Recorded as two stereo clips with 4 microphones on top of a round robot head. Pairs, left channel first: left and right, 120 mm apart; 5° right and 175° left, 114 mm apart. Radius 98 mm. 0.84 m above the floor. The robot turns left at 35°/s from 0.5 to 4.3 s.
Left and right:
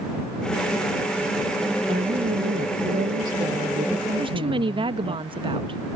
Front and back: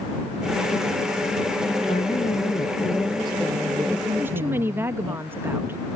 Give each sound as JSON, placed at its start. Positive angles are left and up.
{"t": 1.9, "sound": "a woman speaking", "azimuth_deg": -50}
{"t": 4.2, "sound": "a woman speaking", "azimuth_deg": -115}